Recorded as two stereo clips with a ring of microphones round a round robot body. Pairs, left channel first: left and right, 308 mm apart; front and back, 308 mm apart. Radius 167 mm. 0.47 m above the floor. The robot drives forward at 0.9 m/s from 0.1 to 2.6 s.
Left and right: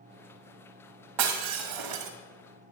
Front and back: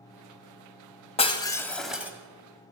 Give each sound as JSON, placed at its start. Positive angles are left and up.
{"t": 1.2, "sound": "breaking glass", "azimuth_deg": -70, "distance_m": 2.0}